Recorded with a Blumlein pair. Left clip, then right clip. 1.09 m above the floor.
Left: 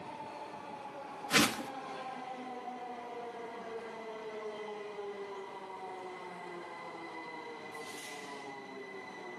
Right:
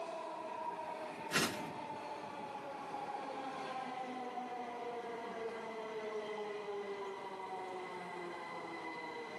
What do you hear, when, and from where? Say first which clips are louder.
1.3 s a whoosh: left 7 dB; 60° left, 0.6 m